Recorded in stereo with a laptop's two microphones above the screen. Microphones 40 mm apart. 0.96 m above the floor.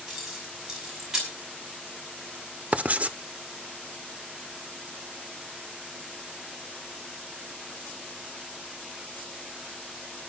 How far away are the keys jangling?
About 5.5 m.